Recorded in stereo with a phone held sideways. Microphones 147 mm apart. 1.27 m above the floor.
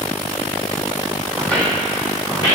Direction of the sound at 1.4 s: 5° left (ahead or behind).